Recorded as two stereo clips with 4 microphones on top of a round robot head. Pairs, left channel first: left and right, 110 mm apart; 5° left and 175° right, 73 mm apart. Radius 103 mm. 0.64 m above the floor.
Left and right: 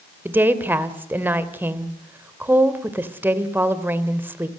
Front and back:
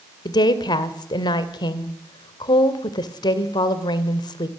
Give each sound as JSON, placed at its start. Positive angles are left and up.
{"t": 0.2, "sound": "a woman speaking", "azimuth_deg": -20, "distance_m": 2.5}